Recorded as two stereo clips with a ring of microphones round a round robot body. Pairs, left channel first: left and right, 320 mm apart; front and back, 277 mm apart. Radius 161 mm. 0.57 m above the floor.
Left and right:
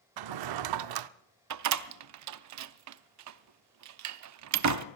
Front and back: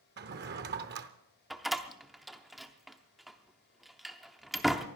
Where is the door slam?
90° right, 0.6 m.